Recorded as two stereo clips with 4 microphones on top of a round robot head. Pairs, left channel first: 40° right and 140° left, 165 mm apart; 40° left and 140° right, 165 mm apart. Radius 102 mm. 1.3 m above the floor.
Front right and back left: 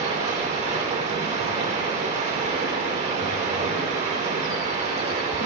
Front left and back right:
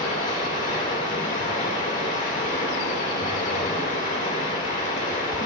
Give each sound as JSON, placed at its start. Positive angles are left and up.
{"t": 0.0, "sound": "running water", "azimuth_deg": 85, "distance_m": 3.0}